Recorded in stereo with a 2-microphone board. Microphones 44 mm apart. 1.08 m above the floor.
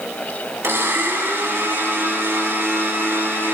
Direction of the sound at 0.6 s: 75° right (ahead or behind).